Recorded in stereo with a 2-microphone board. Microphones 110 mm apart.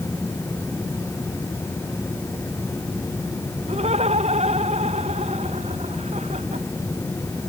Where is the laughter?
80° right.